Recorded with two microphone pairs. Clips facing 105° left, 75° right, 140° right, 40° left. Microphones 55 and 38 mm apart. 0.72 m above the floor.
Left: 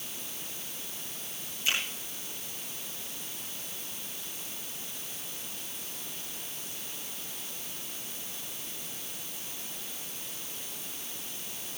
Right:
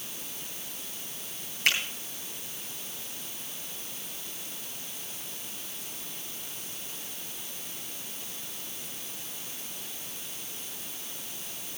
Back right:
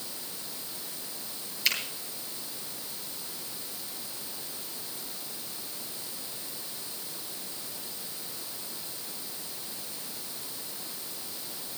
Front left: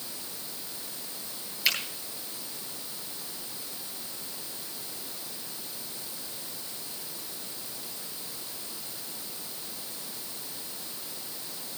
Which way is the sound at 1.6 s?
45° right.